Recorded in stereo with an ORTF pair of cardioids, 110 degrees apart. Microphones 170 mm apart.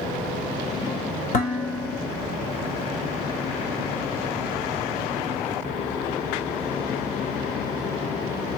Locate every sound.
1.3 s dishes clattering: 50° left, 3 m